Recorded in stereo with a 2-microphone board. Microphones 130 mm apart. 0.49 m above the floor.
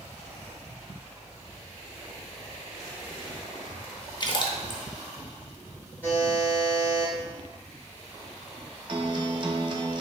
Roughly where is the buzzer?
Centre.